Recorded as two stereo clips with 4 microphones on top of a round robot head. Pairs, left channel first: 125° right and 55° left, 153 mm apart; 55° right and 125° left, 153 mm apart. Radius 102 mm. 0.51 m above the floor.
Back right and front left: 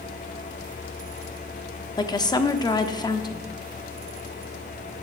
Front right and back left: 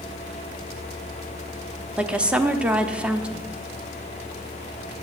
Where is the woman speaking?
155° right, 0.9 m.